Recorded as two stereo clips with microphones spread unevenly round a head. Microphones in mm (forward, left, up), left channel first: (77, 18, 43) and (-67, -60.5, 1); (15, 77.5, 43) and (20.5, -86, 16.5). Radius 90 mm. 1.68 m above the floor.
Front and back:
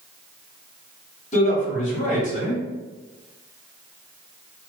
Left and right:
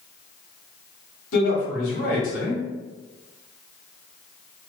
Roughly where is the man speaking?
Left.